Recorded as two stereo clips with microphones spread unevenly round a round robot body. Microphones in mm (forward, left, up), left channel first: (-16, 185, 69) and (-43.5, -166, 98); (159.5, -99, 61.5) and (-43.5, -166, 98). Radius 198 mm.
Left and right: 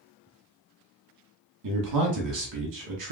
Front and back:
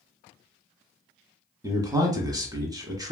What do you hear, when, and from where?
1.6 s a man speaking: 85° right, 1.4 m